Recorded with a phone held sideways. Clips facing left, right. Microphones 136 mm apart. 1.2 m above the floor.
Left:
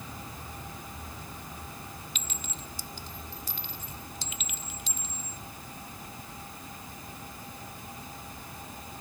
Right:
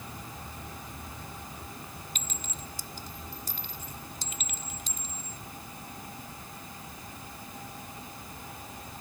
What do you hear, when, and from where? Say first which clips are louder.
2.1 s a clink: even; 45° right (ahead or behind)